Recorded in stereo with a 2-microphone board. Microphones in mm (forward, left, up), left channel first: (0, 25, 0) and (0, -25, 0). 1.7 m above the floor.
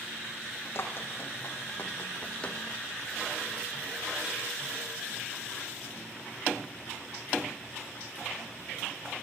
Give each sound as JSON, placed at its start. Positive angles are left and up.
{"t": 0.8, "sound": "running footsteps", "side_deg": 50, "distance_m": 5.0}